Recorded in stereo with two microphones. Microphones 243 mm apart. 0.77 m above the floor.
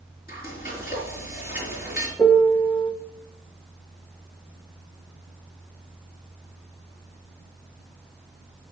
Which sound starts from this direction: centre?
A piano, at 2.2 s.